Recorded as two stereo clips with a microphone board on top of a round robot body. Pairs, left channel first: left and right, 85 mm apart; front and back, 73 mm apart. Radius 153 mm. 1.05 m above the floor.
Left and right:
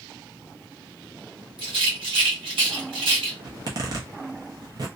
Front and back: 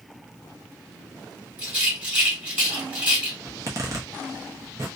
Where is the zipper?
135° right, 0.6 m.